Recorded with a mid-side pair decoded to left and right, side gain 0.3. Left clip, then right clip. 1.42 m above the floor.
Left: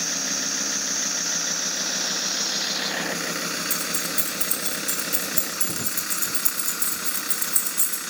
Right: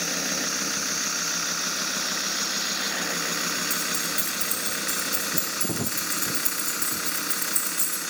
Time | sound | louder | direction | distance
3.7 | keys jangling | even | 50° left | 2.5 m